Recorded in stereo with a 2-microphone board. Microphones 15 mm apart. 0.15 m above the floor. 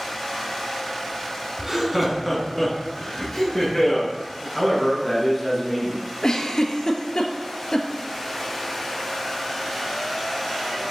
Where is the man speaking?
10° left (ahead or behind), 1.6 m.